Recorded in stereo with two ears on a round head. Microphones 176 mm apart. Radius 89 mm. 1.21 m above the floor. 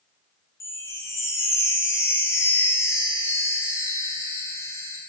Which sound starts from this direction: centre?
A chime, at 0.6 s.